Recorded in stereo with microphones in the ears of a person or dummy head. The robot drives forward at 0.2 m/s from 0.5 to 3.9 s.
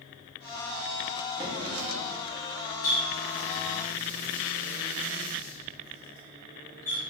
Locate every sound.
1.4 s a drawer: 25° right (ahead or behind), 0.8 m
2.8 s a running tap: 20° left (ahead or behind), 1.5 m